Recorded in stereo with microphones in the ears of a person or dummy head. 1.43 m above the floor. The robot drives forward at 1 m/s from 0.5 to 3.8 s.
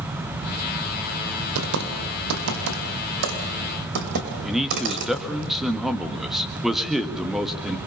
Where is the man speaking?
Centre (ahead or behind), 1.8 m.